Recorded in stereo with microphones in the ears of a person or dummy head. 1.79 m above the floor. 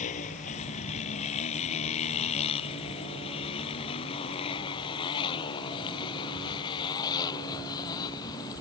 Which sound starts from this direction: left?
A motorcycle, at 0.0 s.